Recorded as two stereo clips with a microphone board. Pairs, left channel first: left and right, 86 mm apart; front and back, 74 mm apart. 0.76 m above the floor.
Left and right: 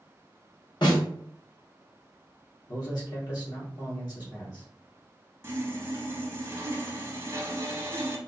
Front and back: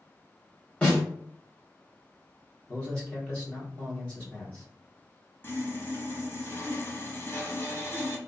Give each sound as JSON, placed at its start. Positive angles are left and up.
{"t": 0.8, "sound": "a snare drum", "azimuth_deg": 70, "distance_m": 1.8}
{"t": 2.7, "sound": "a man speaking", "azimuth_deg": 65, "distance_m": 1.6}
{"t": 5.4, "sound": "sawing", "azimuth_deg": -45, "distance_m": 0.7}